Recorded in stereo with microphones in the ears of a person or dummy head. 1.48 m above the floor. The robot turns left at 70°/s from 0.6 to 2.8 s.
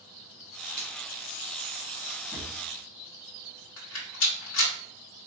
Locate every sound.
0.8 s a finger snap: 50° right (ahead or behind), 1.0 m; by 0.9 s 55° right (ahead or behind), 1.0 m
2.3 s a drawer: 5° left (ahead or behind), 0.6 m; by 2.5 s 10° left (ahead or behind), 0.6 m
3.8 s a rattle: 85° left, 1.0 m